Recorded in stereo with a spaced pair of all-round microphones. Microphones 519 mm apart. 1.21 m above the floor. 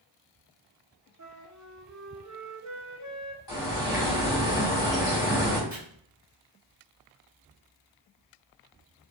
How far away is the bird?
About 1.5 m.